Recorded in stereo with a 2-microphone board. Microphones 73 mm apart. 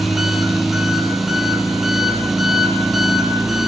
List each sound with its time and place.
0.0 s an engine running: centre (ahead or behind), 0.8 m